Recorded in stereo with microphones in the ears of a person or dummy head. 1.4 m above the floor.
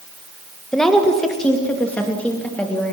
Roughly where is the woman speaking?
Centre.